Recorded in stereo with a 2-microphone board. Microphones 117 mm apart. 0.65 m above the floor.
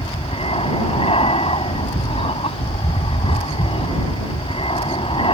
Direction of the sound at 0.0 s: 55° left (ahead or behind).